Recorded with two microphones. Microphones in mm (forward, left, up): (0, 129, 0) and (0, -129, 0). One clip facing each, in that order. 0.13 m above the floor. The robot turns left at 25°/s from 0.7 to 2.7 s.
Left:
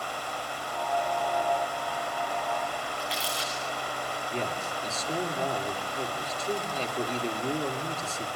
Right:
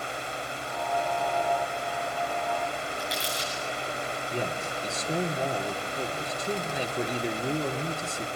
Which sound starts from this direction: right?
Crumpling, at 3.0 s.